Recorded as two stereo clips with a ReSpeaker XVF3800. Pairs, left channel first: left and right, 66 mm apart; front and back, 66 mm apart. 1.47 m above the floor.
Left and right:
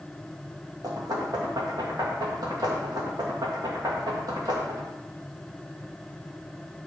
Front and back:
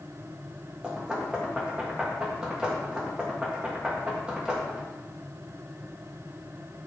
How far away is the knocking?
About 2 m.